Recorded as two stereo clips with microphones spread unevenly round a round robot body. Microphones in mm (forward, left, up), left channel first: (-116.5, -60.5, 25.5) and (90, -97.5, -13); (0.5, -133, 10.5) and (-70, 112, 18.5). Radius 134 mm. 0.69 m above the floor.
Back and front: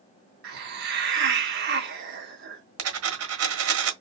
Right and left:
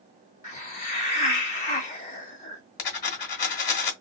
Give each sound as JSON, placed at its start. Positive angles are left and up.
{"t": 0.4, "sound": "a hiss", "azimuth_deg": -15, "distance_m": 1.6}
{"t": 2.8, "sound": "a dropped coin", "azimuth_deg": -20, "distance_m": 1.4}